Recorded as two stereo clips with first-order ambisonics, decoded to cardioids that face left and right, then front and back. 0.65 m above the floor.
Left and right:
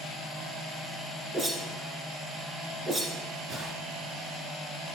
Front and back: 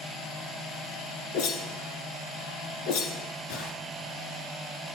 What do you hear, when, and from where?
1.3 s a whoosh: 20° right, 1.8 m